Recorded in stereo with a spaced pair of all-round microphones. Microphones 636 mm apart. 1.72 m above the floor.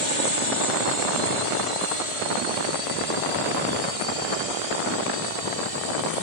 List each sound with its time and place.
0.0 s a drone: 45° left (ahead or behind); by 6.2 s 65° left (ahead or behind)